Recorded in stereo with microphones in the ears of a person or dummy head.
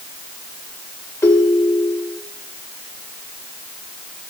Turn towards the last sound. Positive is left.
turn(degrees=10)  # may be behind; listen again after turning